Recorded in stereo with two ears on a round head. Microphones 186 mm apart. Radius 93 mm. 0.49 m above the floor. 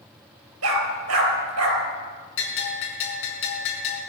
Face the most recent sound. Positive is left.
turn(degrees=70)  # may be behind; listen again after turning